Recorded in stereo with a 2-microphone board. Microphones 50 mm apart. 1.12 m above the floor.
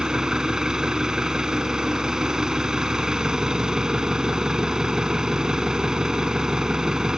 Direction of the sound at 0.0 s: 15° right (ahead or behind).